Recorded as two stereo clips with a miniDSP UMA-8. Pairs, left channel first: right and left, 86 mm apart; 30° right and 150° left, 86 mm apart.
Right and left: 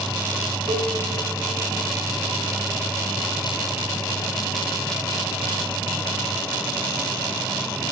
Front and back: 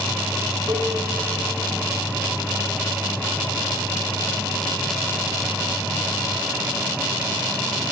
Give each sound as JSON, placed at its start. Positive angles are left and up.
{"t": 0.7, "sound": "a cowbell", "azimuth_deg": 110, "distance_m": 0.7}